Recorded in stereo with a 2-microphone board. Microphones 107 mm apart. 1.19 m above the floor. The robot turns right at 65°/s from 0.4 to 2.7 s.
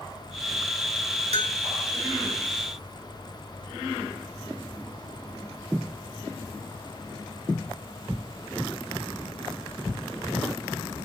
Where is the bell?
80° right, 2 m; by 1.6 s 60° right (ahead or behind), 2 m.